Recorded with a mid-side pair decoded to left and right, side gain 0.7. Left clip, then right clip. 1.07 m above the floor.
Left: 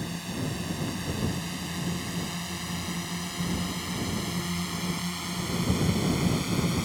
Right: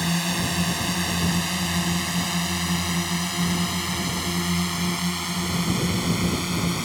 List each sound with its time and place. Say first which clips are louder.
0.0 s a drone: right 10 dB; 50° right; by 6.8 s 25° right